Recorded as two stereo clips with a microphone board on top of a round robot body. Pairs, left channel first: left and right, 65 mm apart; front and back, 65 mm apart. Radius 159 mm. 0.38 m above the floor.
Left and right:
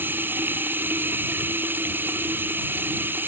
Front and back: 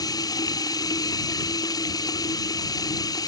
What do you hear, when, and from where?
0.0 s running water: 30° right